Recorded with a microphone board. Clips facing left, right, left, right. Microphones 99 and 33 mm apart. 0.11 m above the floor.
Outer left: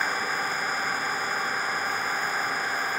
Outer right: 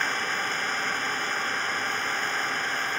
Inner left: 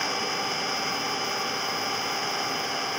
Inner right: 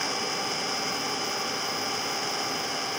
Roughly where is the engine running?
Centre.